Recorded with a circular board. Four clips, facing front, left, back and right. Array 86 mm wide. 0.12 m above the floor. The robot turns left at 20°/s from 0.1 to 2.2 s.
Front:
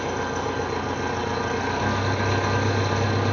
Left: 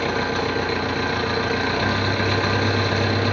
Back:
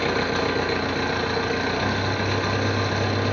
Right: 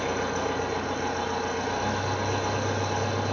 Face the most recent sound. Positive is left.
turn(degrees=100)